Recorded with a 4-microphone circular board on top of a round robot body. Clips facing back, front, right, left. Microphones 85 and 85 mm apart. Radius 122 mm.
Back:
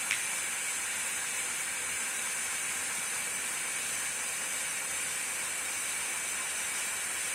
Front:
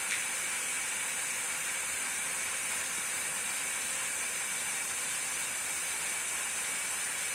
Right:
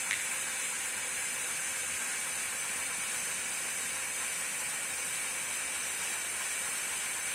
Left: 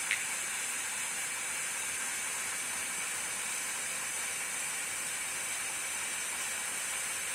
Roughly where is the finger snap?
Behind right.